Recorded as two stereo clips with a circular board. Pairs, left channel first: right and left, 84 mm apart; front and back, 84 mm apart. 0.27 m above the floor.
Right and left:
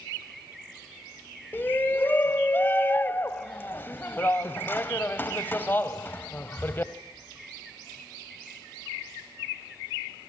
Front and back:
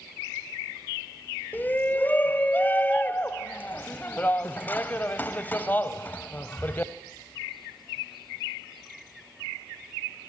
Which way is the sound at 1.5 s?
45° right.